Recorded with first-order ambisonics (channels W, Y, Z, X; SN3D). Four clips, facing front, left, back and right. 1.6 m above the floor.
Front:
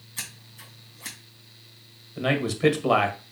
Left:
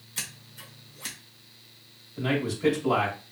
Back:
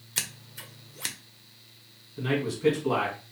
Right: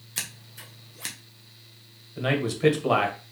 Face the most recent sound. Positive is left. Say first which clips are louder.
# right 2 dB, front 4 dB
turn(degrees=-30)